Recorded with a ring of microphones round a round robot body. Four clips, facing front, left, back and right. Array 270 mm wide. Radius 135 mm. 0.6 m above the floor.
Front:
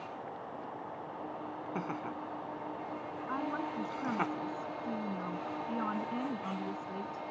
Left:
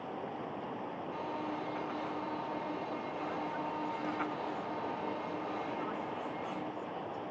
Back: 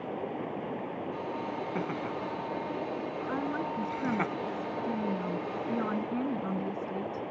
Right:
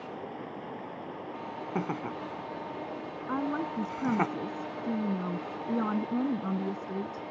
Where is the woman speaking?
110° right.